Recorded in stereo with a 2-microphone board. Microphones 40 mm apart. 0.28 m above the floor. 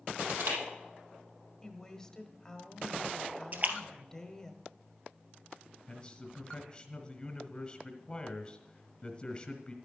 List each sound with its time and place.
0.2 s crushing: 65° right (ahead or behind), 6 m
1.6 s a woman speaking: 15° left (ahead or behind), 1.3 m
3.5 s a splash: 40° right (ahead or behind), 1.4 m
5.9 s a man speaking: 25° left (ahead or behind), 1.5 m